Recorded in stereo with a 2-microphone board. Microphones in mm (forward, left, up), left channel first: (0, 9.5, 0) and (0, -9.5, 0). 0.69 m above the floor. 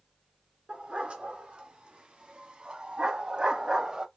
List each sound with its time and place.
0.7 s a dog barking: 80° right, 3 m; by 4.1 s 40° right (ahead or behind), 1.1 m